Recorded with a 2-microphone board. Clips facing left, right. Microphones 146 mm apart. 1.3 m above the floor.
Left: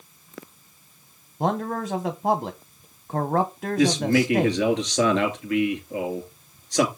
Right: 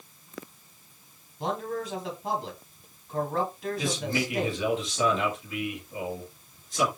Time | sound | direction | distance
1.4 | a man speaking | 65° left (ahead or behind) | 1.0 m
3.8 | a man speaking | 85° left | 2.5 m